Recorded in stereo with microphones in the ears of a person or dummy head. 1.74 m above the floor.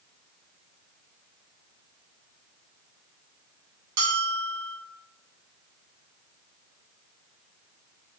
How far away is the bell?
About 1.1 m.